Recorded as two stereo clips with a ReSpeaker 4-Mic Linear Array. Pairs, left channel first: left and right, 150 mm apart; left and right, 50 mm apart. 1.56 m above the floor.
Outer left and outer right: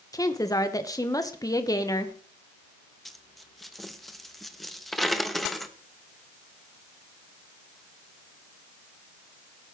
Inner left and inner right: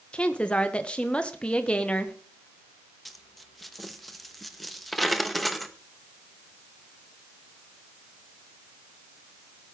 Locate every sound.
0.1 s a woman speaking: 20° left (ahead or behind), 1.2 m
3.0 s a dropped coin: centre (ahead or behind), 0.8 m